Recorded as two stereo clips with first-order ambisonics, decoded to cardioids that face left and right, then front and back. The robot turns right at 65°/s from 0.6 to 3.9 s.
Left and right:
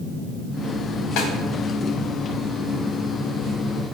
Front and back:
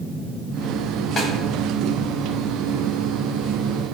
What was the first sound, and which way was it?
A snare drum, 65° left.